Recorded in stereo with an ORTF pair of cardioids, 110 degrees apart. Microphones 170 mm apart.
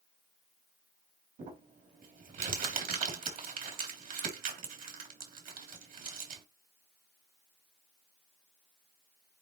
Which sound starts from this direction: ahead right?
Crumpling, at 1.4 s.